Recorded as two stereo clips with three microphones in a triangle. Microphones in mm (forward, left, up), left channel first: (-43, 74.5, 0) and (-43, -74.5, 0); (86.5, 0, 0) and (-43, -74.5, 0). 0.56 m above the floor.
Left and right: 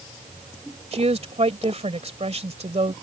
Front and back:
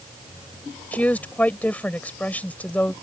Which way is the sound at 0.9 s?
50° right.